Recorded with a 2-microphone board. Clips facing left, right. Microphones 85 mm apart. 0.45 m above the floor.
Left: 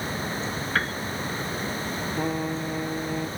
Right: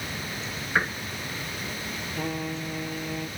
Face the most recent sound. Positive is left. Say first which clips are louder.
# left 3 dB
turn(degrees=15)  # may be behind; listen again after turning